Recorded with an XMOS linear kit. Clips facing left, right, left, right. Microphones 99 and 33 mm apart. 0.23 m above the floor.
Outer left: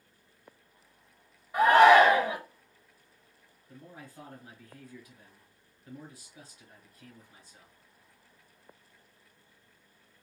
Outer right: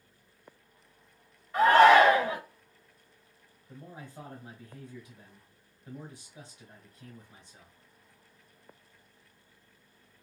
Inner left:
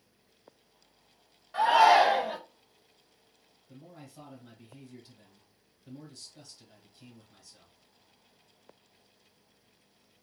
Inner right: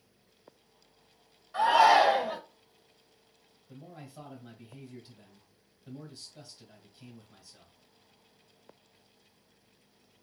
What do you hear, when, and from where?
1.5 s a shout: 20° left (ahead or behind), 1.8 m
3.7 s a man speaking: 20° right (ahead or behind), 1.1 m